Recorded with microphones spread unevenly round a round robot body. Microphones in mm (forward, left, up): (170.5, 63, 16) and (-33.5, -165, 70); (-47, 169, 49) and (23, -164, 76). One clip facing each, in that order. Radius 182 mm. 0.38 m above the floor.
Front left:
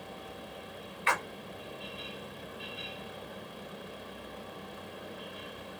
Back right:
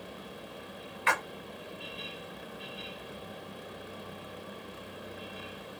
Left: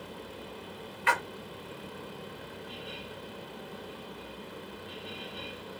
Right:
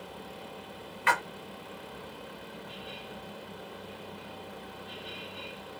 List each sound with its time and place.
1.1 s a splash: 90° right, 1.4 m